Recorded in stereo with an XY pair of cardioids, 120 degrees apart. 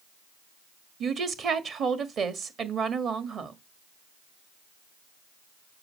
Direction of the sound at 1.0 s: 50° right.